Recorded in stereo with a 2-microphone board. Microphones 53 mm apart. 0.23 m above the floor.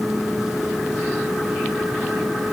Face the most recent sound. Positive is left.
No sound to turn to.